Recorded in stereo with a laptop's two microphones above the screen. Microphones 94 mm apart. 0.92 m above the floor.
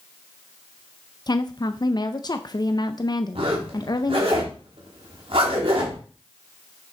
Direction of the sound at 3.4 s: 65° right (ahead or behind).